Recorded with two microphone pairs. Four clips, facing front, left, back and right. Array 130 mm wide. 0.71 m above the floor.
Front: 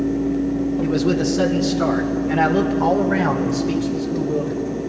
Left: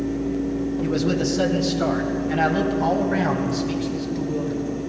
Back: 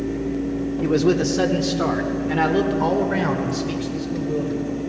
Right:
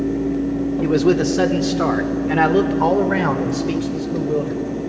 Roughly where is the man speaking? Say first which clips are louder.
Right 8 dB, back 3 dB; behind right.